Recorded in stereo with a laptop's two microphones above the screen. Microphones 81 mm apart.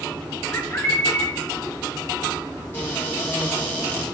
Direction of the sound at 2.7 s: 30° left (ahead or behind).